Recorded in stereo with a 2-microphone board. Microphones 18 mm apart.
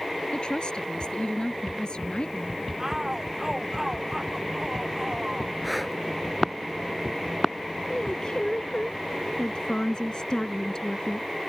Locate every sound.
0.3 s a woman speaking: 65° left (ahead or behind)
2.8 s a shout: 25° right (ahead or behind)
5.6 s breathing: centre (ahead or behind)
7.9 s a woman speaking: 50° left (ahead or behind)